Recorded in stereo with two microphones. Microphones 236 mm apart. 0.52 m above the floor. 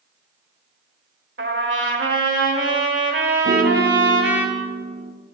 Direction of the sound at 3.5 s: 40° right (ahead or behind).